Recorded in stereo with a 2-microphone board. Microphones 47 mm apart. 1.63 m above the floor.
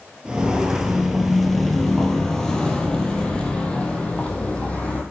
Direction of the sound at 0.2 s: 20° right (ahead or behind).